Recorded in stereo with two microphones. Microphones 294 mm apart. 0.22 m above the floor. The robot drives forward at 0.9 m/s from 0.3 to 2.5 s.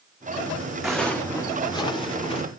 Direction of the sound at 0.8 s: Centre (ahead or behind).